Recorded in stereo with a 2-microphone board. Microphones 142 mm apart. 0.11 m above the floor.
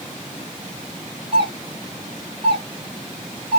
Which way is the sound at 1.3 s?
35° right (ahead or behind).